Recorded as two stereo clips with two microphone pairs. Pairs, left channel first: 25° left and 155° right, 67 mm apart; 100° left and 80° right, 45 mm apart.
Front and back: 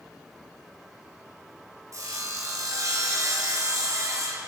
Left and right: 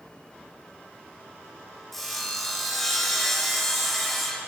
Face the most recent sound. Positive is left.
turn(degrees=-170)